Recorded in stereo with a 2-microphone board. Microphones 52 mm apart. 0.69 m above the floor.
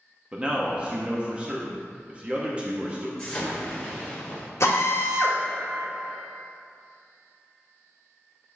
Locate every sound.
0.3 s a man speaking: 25° right (ahead or behind), 0.8 m
3.2 s an explosion: 15° left (ahead or behind), 1.5 m
4.6 s a drill: 65° left (ahead or behind), 1.5 m